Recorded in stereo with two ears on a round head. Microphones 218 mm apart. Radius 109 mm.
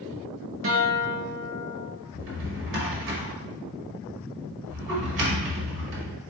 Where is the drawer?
55° right (ahead or behind), 1.3 m.